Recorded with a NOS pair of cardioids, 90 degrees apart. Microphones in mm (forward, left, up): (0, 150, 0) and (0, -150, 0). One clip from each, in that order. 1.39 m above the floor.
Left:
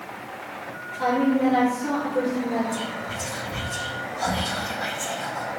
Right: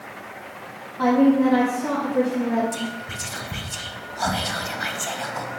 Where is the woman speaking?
70° right, 2.0 m.